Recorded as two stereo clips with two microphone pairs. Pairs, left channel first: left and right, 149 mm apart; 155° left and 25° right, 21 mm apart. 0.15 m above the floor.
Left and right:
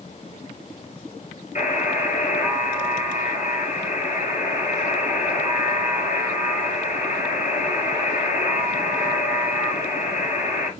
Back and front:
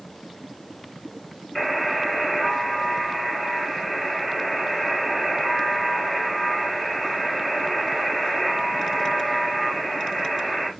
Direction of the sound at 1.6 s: 75° left.